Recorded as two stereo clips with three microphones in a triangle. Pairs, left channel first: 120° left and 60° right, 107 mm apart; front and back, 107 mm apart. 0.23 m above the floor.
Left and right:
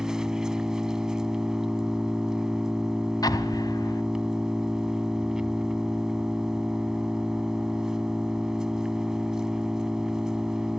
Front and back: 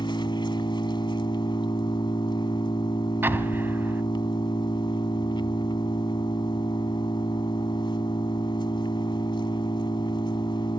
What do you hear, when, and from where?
0.0 s an engine running: 25° left, 1.0 m
3.2 s an explosion: 125° left, 1.3 m